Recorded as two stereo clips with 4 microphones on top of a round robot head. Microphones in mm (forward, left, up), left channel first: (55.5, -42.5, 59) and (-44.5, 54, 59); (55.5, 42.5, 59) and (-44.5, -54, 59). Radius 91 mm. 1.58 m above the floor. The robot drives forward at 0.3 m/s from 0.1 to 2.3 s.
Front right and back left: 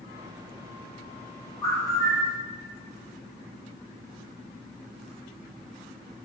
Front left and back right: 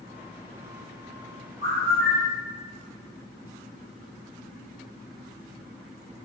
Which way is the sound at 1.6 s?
125° right.